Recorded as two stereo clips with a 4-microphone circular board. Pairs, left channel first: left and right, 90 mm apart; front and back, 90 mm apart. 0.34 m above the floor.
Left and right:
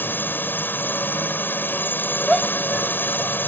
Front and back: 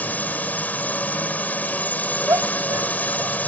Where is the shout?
175° right.